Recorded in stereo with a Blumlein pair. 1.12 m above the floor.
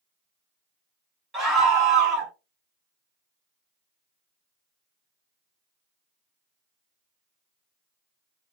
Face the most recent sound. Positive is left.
turn(degrees=-25)